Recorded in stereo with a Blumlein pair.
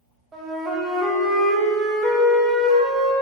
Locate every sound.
0.3 s a flute: 15° right, 1.3 m